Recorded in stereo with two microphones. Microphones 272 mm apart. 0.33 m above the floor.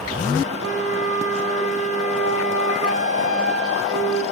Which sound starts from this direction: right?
A flute, at 0.6 s.